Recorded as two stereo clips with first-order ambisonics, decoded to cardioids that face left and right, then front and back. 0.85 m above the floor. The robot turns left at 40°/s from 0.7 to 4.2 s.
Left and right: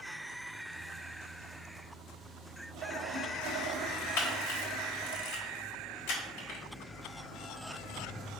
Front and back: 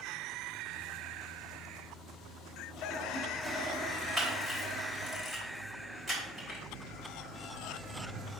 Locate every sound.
2.7 s a toilet flushing: 60° right, 1.6 m; by 5.2 s 120° right, 1.6 m
4.2 s a camera shutter: 95° left, 3 m